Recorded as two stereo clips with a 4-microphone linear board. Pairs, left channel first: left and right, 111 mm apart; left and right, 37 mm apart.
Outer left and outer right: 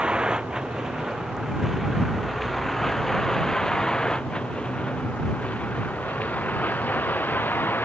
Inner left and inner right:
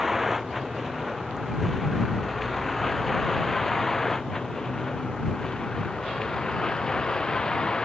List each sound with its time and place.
0.0 s a vehicle: 10° right (ahead or behind); by 7.8 s 20° left (ahead or behind)